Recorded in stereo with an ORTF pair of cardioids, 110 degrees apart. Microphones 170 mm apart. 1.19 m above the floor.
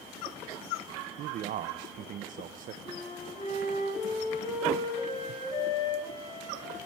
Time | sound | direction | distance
1.2 | a man speaking | 55° right | 0.7 m
2.8 | a flute | 30° left | 5.5 m